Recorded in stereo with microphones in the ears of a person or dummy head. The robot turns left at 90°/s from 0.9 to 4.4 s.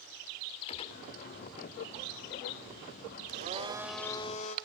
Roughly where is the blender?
Behind right.